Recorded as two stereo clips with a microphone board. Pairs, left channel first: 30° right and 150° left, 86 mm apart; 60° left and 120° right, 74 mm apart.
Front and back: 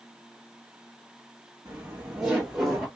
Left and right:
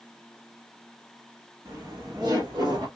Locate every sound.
1.6 s laughter: 160° right, 1.3 m; by 2.9 s 120° right, 1.9 m